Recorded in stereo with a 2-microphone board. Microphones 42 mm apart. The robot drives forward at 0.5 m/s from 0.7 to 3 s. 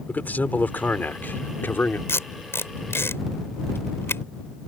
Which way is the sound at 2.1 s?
80° left.